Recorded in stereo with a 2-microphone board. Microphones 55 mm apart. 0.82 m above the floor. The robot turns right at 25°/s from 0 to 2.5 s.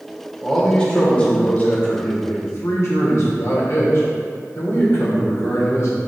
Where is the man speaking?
5° left, 2.5 m; by 6.0 s 60° left, 2.5 m.